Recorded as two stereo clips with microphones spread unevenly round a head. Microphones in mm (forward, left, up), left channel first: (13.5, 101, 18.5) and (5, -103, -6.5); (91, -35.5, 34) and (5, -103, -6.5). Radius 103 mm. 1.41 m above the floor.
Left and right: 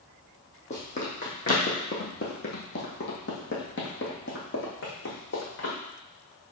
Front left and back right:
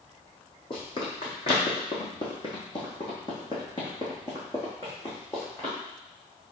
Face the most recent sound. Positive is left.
turn(degrees=100)